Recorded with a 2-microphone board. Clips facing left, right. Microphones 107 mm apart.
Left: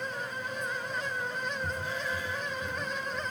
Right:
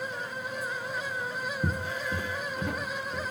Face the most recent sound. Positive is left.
turn(degrees=-80)